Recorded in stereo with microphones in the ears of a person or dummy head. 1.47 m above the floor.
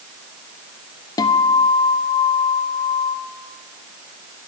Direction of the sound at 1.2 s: 20° left (ahead or behind).